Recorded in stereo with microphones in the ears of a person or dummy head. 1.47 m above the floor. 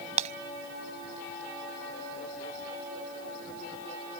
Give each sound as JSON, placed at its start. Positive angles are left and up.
{"t": 0.2, "sound": "breaking glass", "side_deg": -40}